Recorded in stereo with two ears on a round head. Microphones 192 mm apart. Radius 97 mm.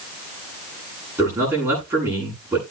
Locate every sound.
1.2 s a man speaking: 15° right (ahead or behind), 9 m